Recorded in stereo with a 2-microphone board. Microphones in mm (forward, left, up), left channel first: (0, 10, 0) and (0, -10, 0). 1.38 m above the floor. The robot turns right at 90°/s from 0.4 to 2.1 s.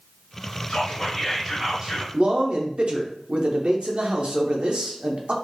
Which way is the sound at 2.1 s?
60° right (ahead or behind).